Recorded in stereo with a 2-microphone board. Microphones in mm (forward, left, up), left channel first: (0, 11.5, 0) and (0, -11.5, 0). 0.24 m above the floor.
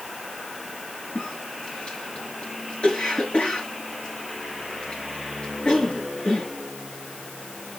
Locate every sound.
1.1 s a cough: 55° left (ahead or behind), 4.5 m